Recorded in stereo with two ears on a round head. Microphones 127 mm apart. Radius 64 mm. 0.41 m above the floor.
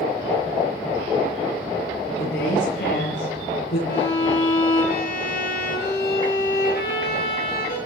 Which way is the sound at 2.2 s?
80° left.